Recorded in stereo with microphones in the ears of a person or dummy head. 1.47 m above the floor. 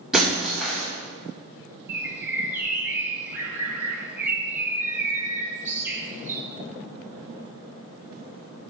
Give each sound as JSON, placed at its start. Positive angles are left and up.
{"t": 0.1, "sound": "breaking glass", "side_deg": -5, "distance_m": 3.5}
{"t": 1.9, "sound": "a bird", "side_deg": -10, "distance_m": 1.5}